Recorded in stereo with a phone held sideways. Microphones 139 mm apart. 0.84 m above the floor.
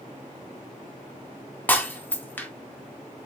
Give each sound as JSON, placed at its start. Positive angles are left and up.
{"t": 1.7, "sound": "breaking glass", "side_deg": 15, "distance_m": 0.5}